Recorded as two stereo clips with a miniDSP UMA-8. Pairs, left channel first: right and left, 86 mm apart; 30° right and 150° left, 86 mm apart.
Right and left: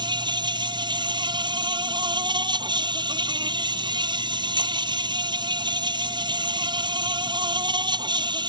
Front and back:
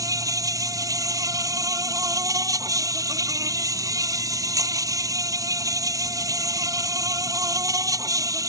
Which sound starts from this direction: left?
An insect, at 0.0 s.